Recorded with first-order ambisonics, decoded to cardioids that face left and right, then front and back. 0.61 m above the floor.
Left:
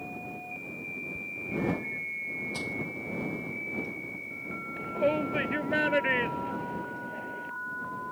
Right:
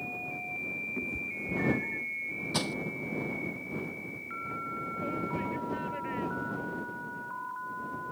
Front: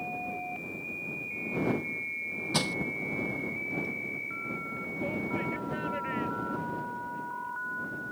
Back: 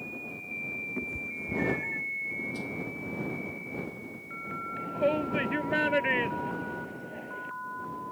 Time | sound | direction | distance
1.0 | a cat meowing | 150° right | ?
2.5 | crushing | 30° right | ?
4.8 | a shout | 130° left | ?